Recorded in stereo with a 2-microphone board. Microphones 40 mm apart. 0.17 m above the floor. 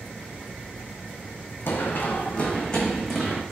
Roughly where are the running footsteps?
Left.